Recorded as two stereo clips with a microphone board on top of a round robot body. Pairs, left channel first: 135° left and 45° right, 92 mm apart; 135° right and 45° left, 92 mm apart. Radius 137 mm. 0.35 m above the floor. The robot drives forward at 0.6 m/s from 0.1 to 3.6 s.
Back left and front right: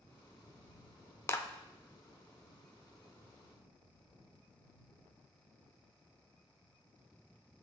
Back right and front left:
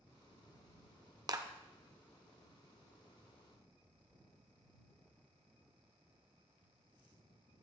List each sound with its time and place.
1.3 s a clap: 80° left, 0.9 m; by 1.5 s 85° left, 0.9 m